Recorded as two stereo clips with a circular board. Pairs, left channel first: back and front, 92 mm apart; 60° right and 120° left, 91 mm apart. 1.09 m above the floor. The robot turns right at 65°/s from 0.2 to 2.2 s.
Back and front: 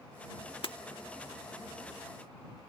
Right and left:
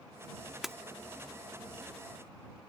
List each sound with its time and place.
0.6 s breaking glass: 155° right; by 0.8 s 145° right